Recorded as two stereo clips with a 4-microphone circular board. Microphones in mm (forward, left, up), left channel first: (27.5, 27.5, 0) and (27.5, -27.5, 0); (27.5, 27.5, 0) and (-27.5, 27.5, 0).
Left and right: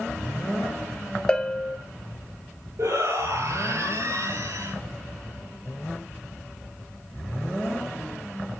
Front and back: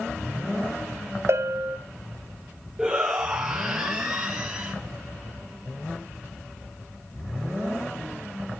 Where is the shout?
95° right, 2.5 m.